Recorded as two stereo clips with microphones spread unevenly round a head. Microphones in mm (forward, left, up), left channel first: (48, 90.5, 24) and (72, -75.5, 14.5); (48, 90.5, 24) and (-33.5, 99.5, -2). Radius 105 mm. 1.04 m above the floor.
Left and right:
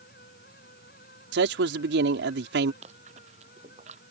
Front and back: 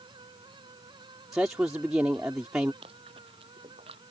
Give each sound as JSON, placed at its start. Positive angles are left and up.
{"t": 0.0, "sound": "a fan", "azimuth_deg": 150}
{"t": 1.3, "sound": "a man speaking", "azimuth_deg": -105}
{"t": 2.8, "sound": "chewing", "azimuth_deg": -145}